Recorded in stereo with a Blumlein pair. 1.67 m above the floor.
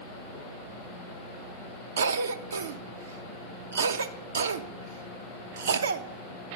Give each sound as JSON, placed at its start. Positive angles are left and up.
{"t": 2.0, "sound": "a cough", "azimuth_deg": -65, "distance_m": 0.6}